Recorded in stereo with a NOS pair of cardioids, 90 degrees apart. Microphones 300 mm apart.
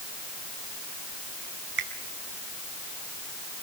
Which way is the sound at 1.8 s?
40° right.